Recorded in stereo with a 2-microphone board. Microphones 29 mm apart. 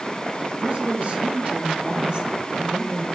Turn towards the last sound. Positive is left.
turn(degrees=-25)  # may be behind; listen again after turning